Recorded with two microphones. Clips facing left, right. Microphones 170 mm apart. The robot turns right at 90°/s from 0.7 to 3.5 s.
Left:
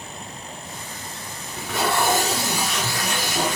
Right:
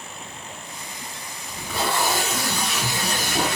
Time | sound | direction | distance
1.5 | tape being pulled | 70° left | 1.1 m